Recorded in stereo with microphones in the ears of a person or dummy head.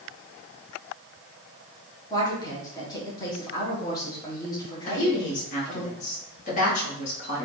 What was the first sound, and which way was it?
A woman speaking, 20° left (ahead or behind).